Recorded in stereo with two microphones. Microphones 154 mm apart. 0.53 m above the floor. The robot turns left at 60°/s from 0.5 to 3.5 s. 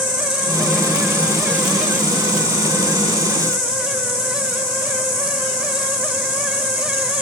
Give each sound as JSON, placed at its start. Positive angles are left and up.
{"t": 0.0, "sound": "an insect", "azimuth_deg": -125, "distance_m": 1.6}